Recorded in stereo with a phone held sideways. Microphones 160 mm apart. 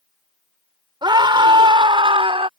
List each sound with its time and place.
1.0 s a scream: 30° right (ahead or behind); by 2.5 s 35° right (ahead or behind)